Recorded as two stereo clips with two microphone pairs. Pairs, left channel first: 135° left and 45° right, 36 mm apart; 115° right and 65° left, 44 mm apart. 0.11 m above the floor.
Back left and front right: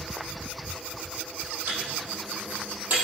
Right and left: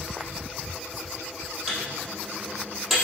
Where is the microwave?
25° right, 3.5 m.